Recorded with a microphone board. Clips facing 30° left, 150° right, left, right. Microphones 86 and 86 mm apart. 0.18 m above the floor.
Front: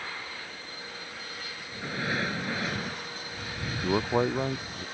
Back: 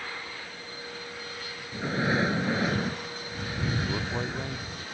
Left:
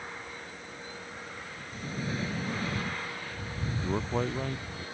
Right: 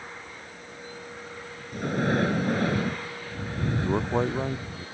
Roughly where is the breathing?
Right.